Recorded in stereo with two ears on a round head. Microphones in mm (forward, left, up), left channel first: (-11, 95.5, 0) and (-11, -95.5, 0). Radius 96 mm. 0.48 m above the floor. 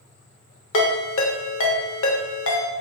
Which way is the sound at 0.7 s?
65° left (ahead or behind).